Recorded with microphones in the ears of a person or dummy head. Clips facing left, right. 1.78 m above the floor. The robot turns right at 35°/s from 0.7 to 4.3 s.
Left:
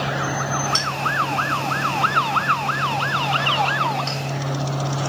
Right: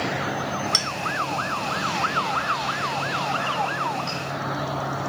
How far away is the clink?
About 1.7 m.